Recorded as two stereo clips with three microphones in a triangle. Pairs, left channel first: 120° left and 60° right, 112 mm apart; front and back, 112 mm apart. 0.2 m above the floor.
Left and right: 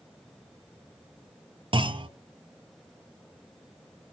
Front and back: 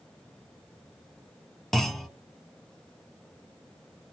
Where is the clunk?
85° right, 0.7 m.